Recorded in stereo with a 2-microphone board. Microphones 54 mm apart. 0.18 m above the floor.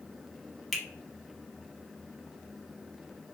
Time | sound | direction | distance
0.7 | a finger snap | centre (ahead or behind) | 0.8 m